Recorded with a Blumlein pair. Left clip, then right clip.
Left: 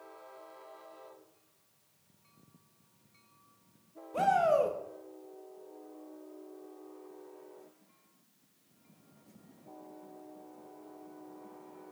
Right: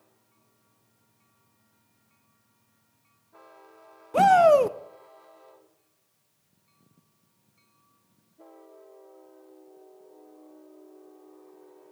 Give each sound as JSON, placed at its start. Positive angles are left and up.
{"t": 4.1, "sound": "a shout", "azimuth_deg": -55, "distance_m": 0.6}